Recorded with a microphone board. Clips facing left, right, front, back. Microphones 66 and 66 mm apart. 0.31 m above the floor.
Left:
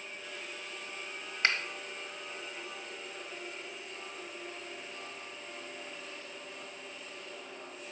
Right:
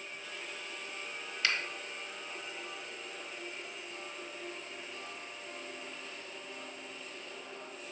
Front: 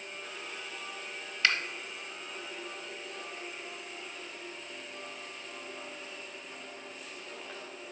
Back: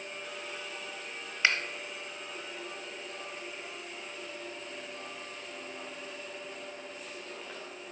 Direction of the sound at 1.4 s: 120° left.